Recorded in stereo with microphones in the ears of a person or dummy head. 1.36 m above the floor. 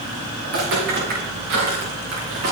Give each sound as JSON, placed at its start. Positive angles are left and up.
{"t": 0.4, "sound": "footsteps", "side_deg": -70, "distance_m": 6.5}